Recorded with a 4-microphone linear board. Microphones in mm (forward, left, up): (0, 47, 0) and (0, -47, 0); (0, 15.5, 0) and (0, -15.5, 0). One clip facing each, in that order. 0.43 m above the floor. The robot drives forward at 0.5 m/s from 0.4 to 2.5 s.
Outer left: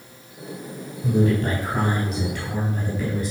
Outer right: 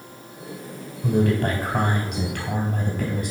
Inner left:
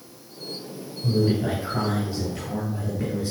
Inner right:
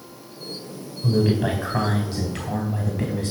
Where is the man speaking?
70° right (ahead or behind), 3 m; by 3.3 s 65° right (ahead or behind), 3 m.